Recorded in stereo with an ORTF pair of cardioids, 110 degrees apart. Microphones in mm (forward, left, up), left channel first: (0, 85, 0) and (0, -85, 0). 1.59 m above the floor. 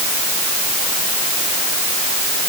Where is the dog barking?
No dog barking in this recording.